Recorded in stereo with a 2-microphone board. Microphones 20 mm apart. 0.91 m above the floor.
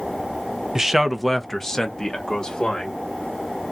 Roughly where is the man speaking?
Right.